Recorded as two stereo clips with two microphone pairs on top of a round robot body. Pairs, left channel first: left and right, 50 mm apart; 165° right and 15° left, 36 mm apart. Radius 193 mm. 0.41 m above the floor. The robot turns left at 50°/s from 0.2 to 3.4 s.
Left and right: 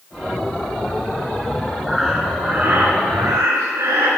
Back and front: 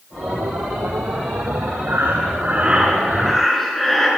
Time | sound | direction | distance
1.9 | breathing | straight ahead | 2.5 m